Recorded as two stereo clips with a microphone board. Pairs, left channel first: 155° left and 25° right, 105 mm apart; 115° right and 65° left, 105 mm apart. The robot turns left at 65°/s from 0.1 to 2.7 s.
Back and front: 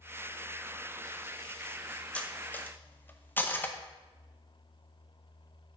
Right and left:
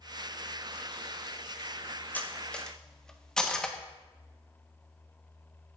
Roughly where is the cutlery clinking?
Behind right.